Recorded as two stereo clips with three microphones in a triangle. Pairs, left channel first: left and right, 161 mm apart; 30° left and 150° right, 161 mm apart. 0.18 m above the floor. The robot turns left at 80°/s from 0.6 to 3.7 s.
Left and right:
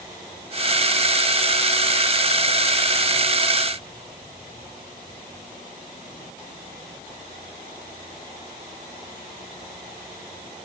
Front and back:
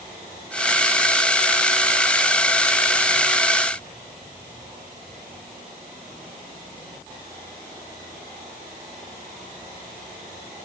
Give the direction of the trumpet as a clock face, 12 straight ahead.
I don't hear a trumpet.